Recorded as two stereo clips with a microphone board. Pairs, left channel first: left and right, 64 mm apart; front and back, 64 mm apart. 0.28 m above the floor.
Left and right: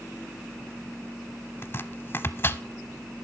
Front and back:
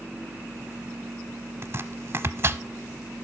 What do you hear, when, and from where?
1.6 s chopping: 140° left, 0.7 m